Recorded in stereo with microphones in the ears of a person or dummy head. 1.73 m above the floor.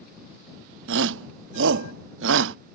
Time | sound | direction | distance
0.9 | a shout | 70° right (ahead or behind) | ?